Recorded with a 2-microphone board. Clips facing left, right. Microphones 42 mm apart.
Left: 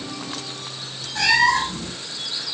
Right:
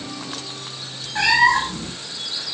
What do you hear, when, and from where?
1.1 s a cat meowing: 30° right (ahead or behind), 2.5 m